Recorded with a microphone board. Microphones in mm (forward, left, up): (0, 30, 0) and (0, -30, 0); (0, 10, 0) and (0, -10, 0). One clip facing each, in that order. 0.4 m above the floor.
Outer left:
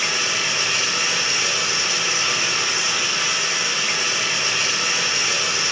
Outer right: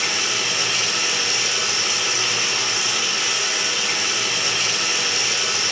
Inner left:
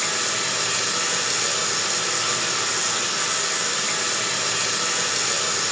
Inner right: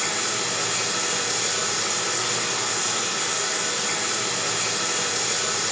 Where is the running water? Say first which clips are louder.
Outer left 1 dB, inner left 2 dB; 35° left (ahead or behind), 1.0 m.